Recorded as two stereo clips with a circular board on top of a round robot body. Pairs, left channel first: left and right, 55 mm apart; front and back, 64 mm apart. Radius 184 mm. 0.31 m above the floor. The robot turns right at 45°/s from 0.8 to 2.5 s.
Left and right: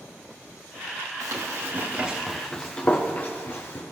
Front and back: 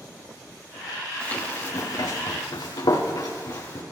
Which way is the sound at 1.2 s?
70° right.